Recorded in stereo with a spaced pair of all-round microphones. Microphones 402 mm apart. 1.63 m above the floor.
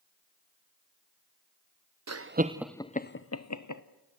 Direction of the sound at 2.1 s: 45° right (ahead or behind).